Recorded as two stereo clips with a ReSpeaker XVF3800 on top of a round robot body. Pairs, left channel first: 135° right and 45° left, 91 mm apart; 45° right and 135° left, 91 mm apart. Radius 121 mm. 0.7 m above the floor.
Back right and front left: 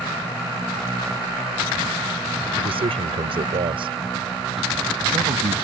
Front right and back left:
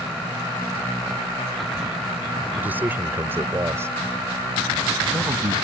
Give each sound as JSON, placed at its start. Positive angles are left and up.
{"t": 2.6, "sound": "a man speaking", "azimuth_deg": 60}